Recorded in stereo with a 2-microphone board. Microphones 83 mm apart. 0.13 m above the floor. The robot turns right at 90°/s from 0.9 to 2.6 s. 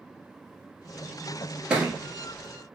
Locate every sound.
1.7 s a thud: 10° right (ahead or behind), 1.2 m; by 2.0 s 30° right (ahead or behind), 1.2 m